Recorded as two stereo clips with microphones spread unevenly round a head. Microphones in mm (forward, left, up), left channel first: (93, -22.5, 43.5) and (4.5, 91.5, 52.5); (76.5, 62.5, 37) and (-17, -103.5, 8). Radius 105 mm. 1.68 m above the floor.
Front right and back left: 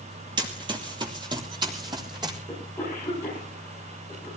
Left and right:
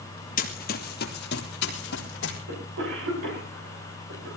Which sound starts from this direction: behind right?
A cough, at 2.5 s.